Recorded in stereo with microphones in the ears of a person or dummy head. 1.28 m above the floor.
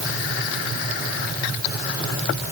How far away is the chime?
I don't hear a chime.